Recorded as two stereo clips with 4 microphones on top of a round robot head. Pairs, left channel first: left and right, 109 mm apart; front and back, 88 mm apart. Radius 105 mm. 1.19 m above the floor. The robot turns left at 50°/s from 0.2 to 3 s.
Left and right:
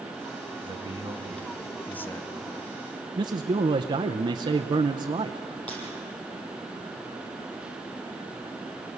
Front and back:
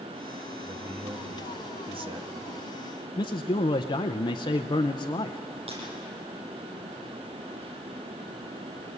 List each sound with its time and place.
0.6 s a man speaking: 130° right, 1.9 m; by 2.3 s 145° left, 1.9 m
3.2 s a man speaking: 40° right, 0.6 m
5.7 s breaking glass: 170° left, 9.5 m